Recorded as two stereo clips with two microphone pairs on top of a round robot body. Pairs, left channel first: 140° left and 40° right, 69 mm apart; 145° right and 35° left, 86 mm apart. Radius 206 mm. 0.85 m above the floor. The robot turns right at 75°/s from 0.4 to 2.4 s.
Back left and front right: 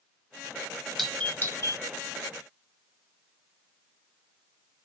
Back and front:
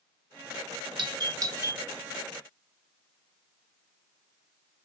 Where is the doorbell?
45° left, 2 m; by 1.8 s 110° left, 2 m.